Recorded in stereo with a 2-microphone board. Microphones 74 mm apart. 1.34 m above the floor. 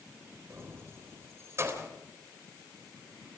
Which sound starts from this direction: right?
Keys jangling, at 0.5 s.